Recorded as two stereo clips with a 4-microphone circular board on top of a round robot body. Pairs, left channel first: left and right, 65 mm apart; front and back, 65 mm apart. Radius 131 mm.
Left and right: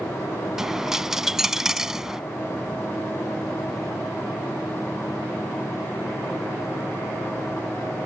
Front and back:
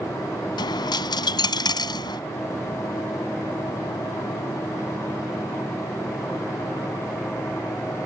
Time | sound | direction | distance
0.6 | a dropped coin | 5° right | ?